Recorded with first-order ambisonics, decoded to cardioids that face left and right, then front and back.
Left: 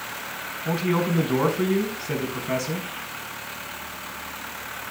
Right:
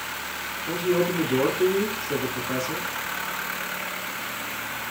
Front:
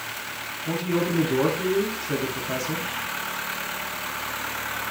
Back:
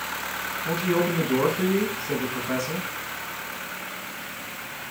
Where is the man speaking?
120° left, 5 m.